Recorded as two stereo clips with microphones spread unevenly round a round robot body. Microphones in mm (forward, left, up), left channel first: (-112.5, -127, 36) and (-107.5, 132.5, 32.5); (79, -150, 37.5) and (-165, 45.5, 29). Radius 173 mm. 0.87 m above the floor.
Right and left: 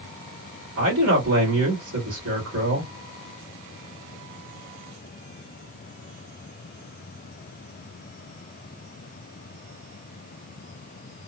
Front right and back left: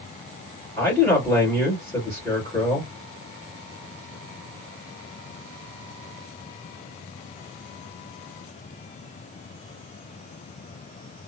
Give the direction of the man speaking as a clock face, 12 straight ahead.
11 o'clock.